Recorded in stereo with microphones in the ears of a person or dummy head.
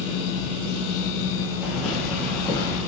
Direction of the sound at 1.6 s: 10° right (ahead or behind).